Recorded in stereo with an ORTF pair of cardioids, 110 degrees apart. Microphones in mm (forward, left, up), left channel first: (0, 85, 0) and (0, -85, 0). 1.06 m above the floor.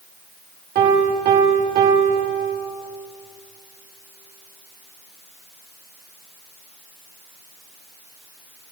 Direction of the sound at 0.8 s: 60° right.